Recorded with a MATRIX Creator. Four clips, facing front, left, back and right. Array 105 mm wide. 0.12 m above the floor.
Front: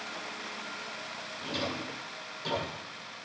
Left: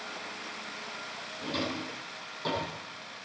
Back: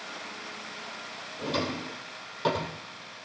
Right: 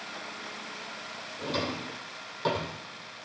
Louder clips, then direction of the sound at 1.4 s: Right 2 dB, back 5 dB; 160° right.